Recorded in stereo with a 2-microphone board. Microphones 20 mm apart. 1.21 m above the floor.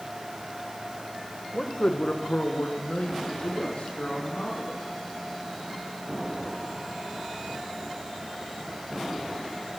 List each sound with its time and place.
1.5 s a man speaking: 25° left (ahead or behind), 1.0 m; by 4.8 s 70° left (ahead or behind), 2.5 m